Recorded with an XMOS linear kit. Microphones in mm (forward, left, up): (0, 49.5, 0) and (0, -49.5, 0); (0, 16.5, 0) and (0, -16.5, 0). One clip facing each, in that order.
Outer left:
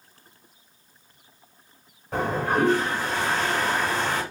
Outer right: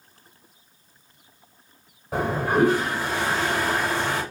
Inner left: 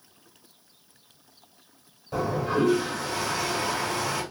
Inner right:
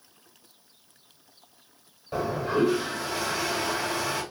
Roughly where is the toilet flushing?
Centre.